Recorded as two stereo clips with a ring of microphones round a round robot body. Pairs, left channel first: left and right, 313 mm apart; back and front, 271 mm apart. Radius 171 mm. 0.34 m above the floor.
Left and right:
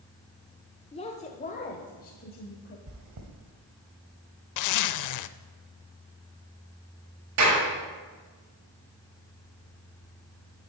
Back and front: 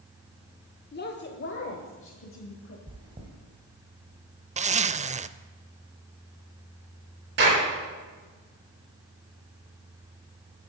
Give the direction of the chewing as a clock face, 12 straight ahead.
2 o'clock.